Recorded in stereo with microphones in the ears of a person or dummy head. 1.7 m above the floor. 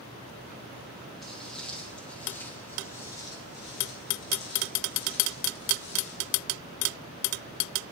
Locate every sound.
1.2 s footsteps: centre (ahead or behind), 4 m; by 6.4 s 60° left (ahead or behind), 3.5 m